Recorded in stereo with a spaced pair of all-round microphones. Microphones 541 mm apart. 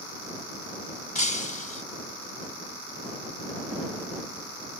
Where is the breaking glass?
60° left (ahead or behind).